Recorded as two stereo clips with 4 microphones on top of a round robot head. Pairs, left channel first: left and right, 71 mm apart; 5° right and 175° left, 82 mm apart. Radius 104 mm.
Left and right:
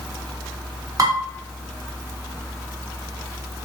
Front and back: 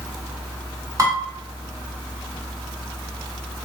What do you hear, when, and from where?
1.0 s dishes clattering: 130° right, 1.9 m